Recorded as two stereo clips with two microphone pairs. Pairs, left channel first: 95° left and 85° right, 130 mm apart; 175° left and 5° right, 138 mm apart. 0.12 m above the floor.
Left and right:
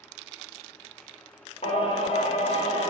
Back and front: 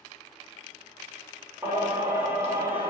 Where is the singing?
65° left, 0.7 m.